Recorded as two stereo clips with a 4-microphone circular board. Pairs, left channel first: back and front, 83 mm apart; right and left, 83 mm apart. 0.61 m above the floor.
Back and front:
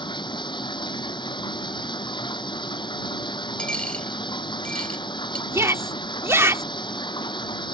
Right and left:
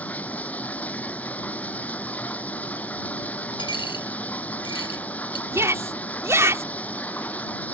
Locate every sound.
0.0 s running water: 165° right
3.6 s a dropped coin: 100° right
5.5 s a shout: 45° left